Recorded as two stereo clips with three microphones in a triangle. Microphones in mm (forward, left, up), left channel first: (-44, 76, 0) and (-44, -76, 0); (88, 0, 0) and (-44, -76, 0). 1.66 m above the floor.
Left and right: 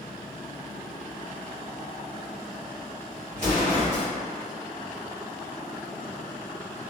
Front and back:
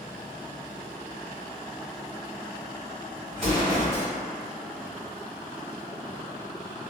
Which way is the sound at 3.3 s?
25° right.